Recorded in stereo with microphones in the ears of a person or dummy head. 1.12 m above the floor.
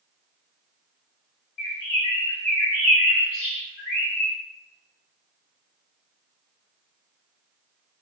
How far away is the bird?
About 2 m.